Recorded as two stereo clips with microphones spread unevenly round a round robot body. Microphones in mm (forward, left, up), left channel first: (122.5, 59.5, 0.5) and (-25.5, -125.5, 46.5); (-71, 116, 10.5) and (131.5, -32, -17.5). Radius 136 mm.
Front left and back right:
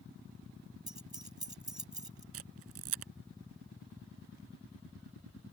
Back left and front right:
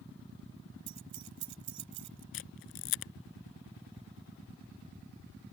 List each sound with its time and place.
0.9 s keys jangling: 50° right
2.3 s a camera shutter: 170° right